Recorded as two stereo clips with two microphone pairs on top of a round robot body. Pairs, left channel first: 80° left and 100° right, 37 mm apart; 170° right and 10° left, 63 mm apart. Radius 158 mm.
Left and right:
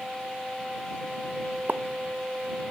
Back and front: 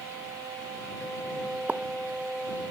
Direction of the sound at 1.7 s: 60° right.